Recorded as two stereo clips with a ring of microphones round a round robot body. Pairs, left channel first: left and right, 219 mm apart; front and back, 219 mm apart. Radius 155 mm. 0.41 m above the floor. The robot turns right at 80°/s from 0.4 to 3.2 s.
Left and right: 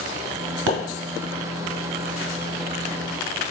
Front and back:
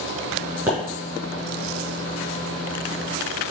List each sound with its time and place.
0.7 s a pop: 100° right, 1.3 m; by 0.8 s 90° right, 1.3 m